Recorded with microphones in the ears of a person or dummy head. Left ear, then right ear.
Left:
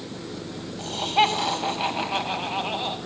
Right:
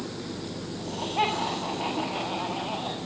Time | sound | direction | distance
0.8 | laughter | 90° left | 6 m